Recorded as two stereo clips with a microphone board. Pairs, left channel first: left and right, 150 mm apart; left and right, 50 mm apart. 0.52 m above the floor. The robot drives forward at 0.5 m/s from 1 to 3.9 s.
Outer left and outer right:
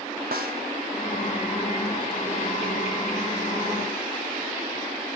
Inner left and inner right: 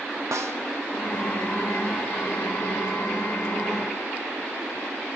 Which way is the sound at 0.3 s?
90° right.